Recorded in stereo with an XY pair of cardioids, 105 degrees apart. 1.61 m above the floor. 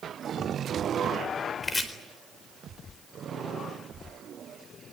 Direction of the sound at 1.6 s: 25° left.